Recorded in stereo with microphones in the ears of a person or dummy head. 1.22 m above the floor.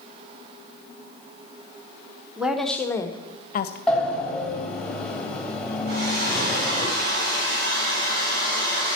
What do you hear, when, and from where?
2.4 s a woman speaking: 5° right (ahead or behind), 1.1 m; by 3.8 s 55° left (ahead or behind), 0.8 m
3.9 s a sliding door: centre (ahead or behind), 1.4 m
5.9 s a hair dryer: 65° right (ahead or behind), 4.5 m